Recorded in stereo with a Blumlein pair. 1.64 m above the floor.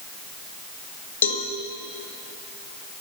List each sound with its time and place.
1.2 s a cowbell: 65° left, 0.8 m